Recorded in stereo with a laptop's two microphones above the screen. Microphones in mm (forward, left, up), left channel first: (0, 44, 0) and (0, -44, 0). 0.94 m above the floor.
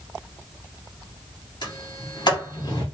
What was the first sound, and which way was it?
A sliding door, 60° left (ahead or behind).